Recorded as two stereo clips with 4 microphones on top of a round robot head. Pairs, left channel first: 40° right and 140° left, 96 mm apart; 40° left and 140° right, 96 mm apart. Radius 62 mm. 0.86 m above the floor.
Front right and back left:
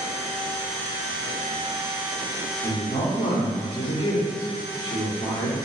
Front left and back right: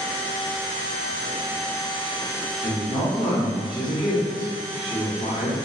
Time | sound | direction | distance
2.6 | a woman speaking | 10° left | 1.7 m